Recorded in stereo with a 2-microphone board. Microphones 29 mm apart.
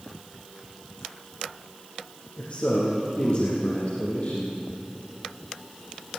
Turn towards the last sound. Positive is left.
turn(degrees=45)  # may be behind; listen again after turning